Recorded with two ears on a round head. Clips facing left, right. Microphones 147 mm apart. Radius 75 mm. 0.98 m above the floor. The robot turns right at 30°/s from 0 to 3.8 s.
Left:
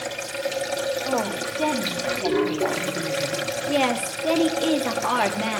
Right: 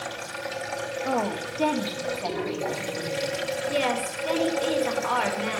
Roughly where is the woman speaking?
Ahead.